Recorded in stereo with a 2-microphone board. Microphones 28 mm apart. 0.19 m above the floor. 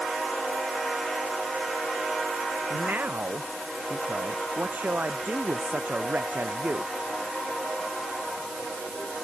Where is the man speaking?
85° right.